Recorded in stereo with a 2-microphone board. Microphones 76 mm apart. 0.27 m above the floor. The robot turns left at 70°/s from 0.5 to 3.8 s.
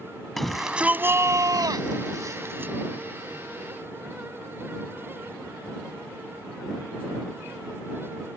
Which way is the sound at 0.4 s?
5° left.